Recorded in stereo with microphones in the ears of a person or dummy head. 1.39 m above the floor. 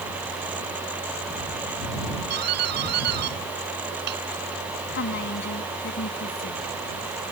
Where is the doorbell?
55° right (ahead or behind).